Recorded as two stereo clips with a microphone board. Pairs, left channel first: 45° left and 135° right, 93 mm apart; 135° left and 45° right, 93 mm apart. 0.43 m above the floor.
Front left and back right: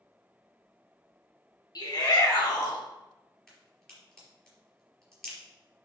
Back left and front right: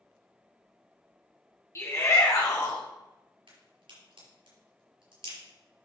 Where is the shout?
80° left, 3 m; by 2.8 s 85° left, 3.5 m.